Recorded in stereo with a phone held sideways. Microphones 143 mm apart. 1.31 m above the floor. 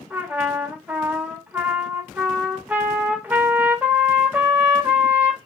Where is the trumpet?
10° right (ahead or behind), 1.0 m.